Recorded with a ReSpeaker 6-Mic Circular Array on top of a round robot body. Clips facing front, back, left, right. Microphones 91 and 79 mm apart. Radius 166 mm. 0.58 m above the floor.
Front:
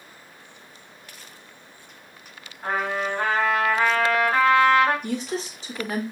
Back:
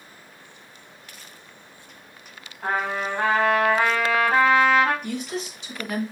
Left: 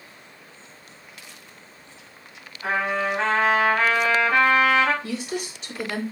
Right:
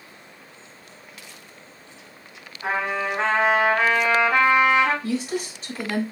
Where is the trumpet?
165° right, 1.3 m.